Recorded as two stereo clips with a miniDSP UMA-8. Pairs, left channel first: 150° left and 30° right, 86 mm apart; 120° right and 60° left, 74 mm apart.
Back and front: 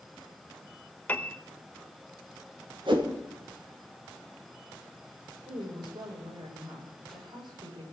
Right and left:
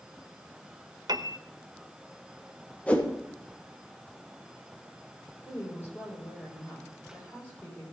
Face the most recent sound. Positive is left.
turn(degrees=-55)